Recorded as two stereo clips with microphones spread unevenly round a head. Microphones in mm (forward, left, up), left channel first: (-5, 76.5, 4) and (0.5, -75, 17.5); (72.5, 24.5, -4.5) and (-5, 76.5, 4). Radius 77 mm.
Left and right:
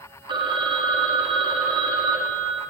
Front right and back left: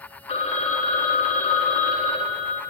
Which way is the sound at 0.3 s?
25° right.